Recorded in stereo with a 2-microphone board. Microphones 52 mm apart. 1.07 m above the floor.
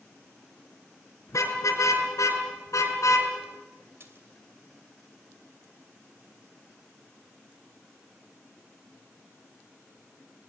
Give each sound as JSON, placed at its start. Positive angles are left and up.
{"t": 1.3, "sound": "a car horn", "side_deg": 80, "distance_m": 5.5}
{"t": 4.0, "sound": "a splash", "side_deg": -55, "distance_m": 3.0}